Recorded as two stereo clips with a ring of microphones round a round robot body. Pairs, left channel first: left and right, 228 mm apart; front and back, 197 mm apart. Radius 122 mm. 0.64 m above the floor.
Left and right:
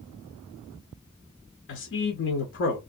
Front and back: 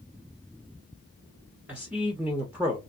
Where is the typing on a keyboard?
No typing on a keyboard in this recording.